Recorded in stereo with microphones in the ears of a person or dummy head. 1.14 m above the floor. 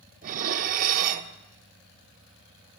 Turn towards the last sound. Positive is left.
turn(degrees=-45)  # may be behind; listen again after turning